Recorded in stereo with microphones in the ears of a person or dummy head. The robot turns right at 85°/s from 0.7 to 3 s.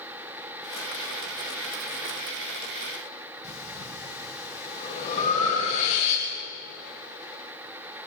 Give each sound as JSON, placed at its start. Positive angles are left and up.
{"t": 3.4, "sound": "breathing", "side_deg": 45, "distance_m": 9.0}